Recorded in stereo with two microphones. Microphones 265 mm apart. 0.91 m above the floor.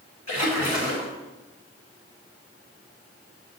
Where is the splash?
80° left, 2.5 m.